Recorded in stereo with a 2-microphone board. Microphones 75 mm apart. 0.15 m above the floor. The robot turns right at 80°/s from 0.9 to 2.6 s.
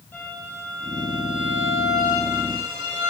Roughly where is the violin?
Behind left.